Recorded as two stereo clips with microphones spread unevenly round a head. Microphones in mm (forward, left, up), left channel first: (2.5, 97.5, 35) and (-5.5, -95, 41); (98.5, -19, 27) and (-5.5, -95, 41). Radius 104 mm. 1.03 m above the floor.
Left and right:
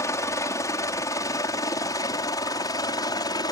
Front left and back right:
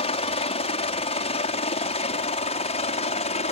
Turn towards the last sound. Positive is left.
turn(degrees=20)